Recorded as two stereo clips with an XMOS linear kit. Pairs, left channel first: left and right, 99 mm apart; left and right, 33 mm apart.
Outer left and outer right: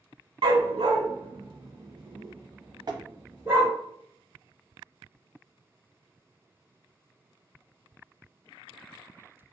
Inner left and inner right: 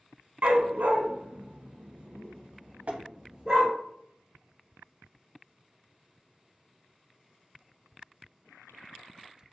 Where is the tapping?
50° right (ahead or behind), 0.6 m.